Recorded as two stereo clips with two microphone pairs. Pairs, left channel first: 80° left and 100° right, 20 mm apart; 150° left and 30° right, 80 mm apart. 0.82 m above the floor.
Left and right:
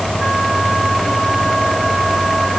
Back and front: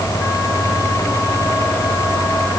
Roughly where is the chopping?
No chopping in this recording.